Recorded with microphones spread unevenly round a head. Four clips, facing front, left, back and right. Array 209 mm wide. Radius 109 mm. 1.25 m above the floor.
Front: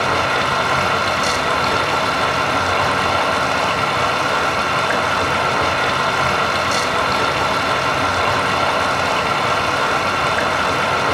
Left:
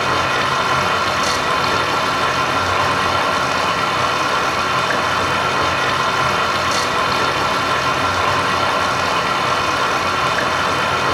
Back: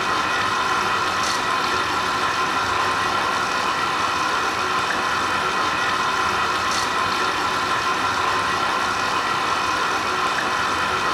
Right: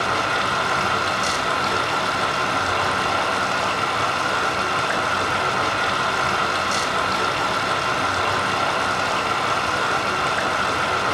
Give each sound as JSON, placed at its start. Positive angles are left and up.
{"t": 0.0, "sound": "running water", "azimuth_deg": 30, "distance_m": 1.1}